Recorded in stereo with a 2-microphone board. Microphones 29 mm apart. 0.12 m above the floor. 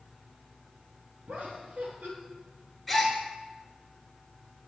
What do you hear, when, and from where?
1.3 s laughter: 55° right (ahead or behind), 3.5 m
2.9 s a gasp: 5° left (ahead or behind), 2.5 m